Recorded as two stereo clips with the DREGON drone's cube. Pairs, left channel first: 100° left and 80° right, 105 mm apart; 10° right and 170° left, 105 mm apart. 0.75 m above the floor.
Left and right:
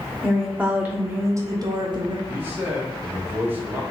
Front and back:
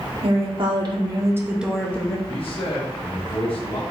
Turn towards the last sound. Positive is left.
turn(degrees=-15)